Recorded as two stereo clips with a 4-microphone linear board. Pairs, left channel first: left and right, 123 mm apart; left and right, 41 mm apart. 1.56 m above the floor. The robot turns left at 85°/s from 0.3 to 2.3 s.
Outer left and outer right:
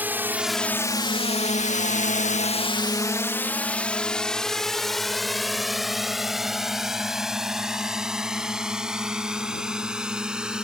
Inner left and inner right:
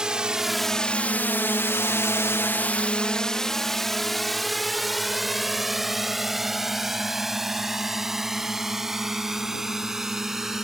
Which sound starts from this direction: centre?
A drone, at 0.0 s.